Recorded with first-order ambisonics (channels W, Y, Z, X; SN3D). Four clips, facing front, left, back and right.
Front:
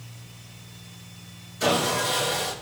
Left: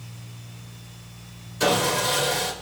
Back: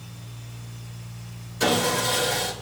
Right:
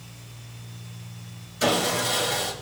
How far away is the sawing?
About 6 m.